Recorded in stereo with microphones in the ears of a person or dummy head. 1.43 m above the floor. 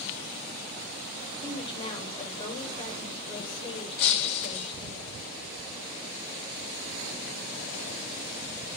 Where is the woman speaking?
25° left (ahead or behind), 5 m.